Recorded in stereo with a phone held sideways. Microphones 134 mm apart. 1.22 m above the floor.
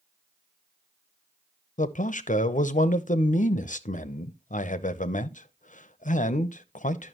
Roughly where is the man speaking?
Left.